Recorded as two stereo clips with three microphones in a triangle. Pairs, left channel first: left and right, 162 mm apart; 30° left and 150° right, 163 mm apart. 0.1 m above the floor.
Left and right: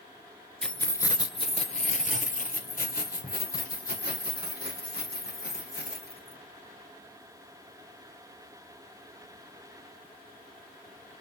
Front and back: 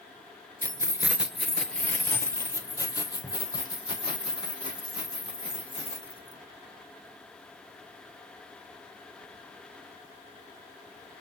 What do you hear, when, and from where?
0.6 s keys jangling: 175° left, 0.9 m; by 6.4 s 85° left, 4 m